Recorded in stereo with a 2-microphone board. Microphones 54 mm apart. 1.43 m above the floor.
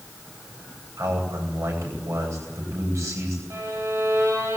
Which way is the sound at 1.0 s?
70° right (ahead or behind).